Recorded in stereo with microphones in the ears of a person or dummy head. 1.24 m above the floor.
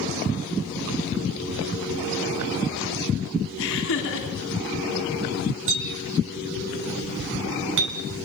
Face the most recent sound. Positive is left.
turn(degrees=-70)  # may be behind; listen again after turning